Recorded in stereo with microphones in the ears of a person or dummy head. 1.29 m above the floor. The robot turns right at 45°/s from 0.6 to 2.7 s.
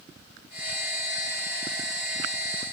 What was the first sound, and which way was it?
Only background noise.